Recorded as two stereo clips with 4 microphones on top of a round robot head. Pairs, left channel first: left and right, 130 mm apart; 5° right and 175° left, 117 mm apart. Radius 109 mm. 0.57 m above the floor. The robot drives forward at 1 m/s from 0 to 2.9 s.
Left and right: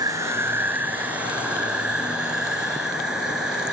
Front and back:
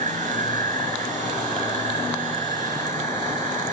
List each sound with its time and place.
0.0 s an insect: 150° right; by 3.7 s 175° right